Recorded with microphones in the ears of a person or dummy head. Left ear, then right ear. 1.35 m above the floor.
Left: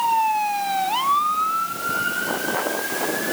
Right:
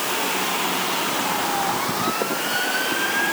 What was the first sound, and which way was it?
Only background noise.